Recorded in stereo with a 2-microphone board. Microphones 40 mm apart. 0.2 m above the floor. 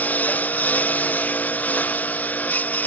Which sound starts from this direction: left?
A lawn mower, at 0.0 s.